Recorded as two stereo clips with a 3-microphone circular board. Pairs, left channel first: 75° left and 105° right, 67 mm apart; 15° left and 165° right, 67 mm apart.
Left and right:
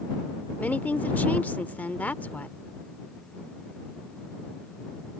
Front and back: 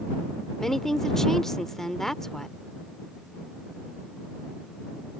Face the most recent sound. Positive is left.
turn(degrees=95)